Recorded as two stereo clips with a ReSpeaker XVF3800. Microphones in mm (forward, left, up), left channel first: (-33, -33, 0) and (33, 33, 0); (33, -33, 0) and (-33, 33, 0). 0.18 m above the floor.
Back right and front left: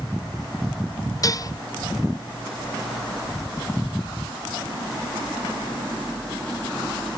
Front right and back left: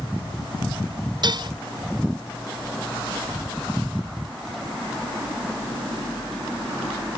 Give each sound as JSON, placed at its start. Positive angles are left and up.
{"t": 1.2, "sound": "dishes clattering", "azimuth_deg": 175}